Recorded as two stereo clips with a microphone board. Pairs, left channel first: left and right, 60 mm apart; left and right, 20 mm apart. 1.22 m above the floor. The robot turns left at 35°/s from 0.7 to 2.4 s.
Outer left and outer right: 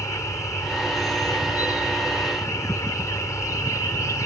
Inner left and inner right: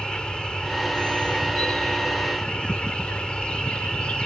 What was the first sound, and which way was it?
An insect, 120° left.